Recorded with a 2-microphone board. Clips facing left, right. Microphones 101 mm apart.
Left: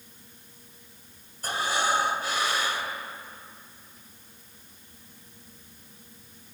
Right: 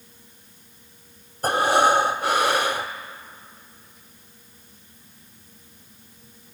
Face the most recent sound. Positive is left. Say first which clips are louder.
# right 9 dB
turn(degrees=-75)  # may be behind; listen again after turning